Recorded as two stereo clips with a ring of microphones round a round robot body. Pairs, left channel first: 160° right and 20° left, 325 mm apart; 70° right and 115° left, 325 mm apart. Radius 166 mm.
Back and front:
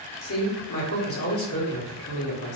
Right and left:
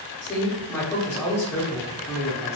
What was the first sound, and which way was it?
A man speaking, 145° right.